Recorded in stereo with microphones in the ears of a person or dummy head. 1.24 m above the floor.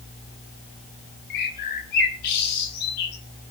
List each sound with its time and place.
1.3 s a bird: 55° left (ahead or behind), 2.5 m